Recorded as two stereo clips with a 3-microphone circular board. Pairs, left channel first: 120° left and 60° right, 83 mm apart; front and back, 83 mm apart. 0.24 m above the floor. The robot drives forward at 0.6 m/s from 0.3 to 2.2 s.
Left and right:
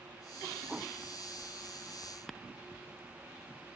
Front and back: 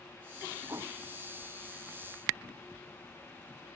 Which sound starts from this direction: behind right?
A whoosh, at 0.7 s.